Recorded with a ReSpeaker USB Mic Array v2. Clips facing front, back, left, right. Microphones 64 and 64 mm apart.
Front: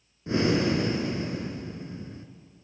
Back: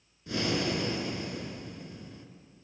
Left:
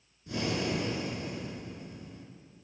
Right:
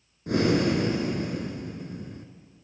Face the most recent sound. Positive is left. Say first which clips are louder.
# front 6 dB, right 9 dB
turn(degrees=-60)